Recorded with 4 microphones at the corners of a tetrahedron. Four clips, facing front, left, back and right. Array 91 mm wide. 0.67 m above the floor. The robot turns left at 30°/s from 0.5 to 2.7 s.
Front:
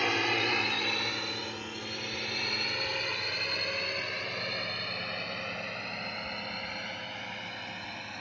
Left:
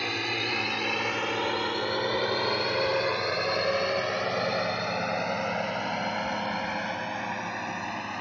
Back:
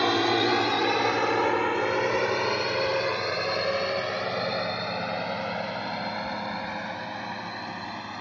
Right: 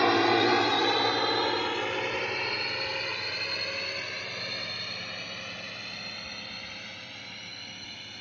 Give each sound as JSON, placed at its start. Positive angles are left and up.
{"t": 0.0, "sound": "a drone", "azimuth_deg": -125}